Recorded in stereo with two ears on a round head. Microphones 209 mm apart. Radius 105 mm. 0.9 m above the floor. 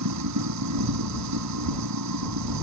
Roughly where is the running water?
Right.